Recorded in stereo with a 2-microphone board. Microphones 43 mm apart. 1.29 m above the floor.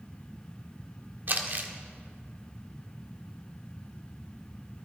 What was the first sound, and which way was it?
Crumpling, 50° right (ahead or behind).